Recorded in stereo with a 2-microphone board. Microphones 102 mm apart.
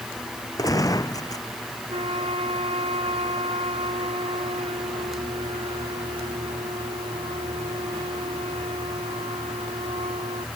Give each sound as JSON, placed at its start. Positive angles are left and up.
{"t": 0.6, "sound": "a gunshot", "side_deg": 35}
{"t": 1.9, "sound": "a flute", "side_deg": -75}